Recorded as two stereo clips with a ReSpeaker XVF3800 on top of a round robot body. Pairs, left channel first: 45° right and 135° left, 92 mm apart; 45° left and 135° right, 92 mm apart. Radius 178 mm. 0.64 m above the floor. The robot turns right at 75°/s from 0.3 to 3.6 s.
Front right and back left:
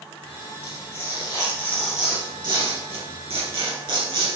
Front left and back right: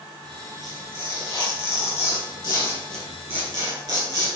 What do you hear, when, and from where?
0.6 s tearing paper: 50° right, 3 m; by 4.3 s 170° left, 3 m